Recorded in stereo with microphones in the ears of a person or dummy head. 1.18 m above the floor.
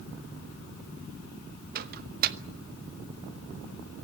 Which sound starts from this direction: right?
A microwave, at 1.8 s.